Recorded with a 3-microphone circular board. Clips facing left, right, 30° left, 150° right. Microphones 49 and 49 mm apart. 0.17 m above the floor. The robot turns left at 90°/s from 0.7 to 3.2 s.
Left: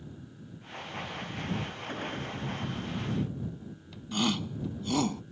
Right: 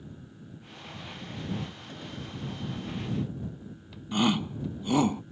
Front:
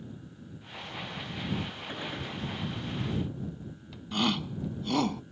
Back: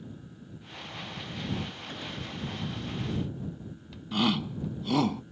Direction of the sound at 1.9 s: 100° left.